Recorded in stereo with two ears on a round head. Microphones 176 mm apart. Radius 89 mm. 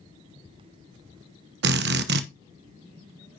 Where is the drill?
60° right (ahead or behind), 1.0 m.